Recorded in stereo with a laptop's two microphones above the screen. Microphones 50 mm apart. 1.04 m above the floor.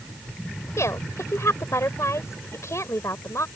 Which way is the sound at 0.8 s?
70° left (ahead or behind).